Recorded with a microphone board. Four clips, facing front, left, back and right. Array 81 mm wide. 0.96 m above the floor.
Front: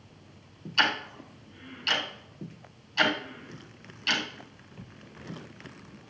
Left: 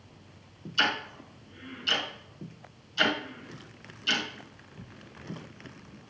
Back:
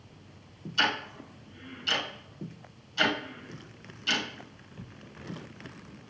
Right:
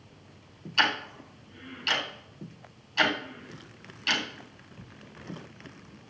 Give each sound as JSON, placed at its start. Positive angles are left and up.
{"t": 0.8, "sound": "ticking", "azimuth_deg": -60, "distance_m": 3.0}